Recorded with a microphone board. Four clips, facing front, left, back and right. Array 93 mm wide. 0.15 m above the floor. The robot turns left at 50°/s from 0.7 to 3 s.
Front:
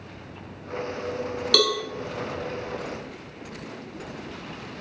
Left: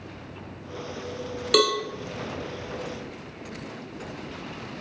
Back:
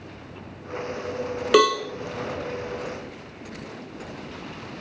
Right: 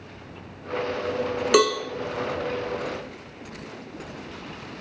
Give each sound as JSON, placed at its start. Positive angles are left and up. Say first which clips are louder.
{"t": 1.5, "sound": "a cowbell", "louder": "right 2 dB, back 7 dB", "azimuth_deg": -150, "distance_m": 0.9}